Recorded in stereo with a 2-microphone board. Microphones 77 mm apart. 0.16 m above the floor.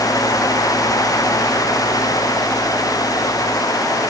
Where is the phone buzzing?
No phone buzzing in this recording.